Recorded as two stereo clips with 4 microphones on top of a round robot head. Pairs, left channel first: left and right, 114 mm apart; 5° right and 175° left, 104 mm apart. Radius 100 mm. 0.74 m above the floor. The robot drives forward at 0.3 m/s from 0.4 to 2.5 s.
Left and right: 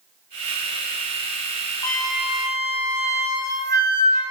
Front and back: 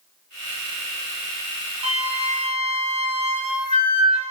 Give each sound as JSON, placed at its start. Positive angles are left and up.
{"t": 1.8, "sound": "a flute", "azimuth_deg": 150, "distance_m": 0.8}